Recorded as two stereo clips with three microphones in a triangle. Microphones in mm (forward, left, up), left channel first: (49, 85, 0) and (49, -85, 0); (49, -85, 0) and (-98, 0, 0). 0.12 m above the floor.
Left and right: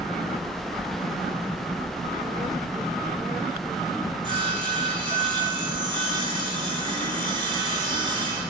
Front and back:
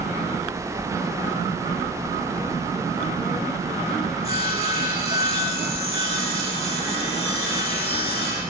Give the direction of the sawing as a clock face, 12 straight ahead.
2 o'clock.